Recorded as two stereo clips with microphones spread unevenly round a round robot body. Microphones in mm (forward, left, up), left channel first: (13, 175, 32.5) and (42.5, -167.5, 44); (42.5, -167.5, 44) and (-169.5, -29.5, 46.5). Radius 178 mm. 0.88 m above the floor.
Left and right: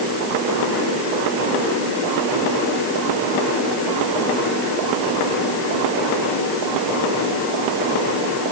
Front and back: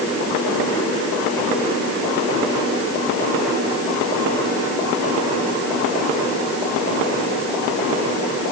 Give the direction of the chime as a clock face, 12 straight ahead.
I don't hear a chime.